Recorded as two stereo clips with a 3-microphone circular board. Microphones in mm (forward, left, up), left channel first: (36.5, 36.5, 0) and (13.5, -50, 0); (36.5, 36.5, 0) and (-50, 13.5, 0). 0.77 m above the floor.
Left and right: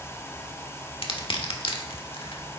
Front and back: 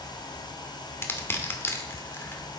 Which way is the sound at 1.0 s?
80° left.